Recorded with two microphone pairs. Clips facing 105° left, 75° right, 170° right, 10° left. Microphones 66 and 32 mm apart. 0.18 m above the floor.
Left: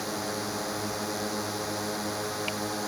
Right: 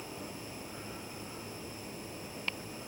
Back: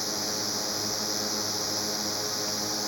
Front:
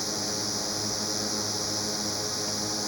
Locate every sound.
0.0 s a drone: 105° left